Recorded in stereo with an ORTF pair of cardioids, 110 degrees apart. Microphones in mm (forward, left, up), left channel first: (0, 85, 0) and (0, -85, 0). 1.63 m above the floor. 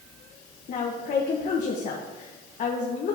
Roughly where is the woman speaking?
Ahead left.